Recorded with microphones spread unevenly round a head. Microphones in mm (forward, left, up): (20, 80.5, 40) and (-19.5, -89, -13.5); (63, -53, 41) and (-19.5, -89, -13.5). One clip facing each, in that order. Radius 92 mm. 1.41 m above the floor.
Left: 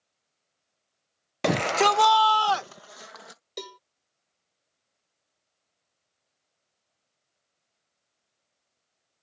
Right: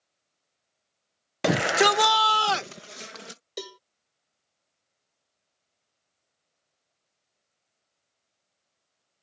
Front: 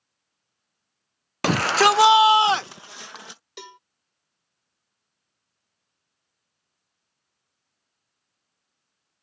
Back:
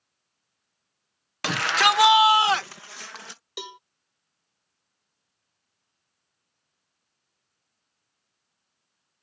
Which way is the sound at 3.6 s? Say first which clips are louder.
Right 1 dB, back 4 dB; 15° left.